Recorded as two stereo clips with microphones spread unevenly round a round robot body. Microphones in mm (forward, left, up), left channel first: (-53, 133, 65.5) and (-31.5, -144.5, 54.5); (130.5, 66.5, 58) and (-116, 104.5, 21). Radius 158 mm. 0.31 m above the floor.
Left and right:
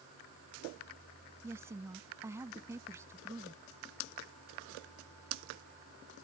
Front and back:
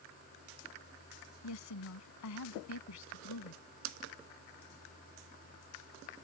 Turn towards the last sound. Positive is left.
turn(degrees=-5)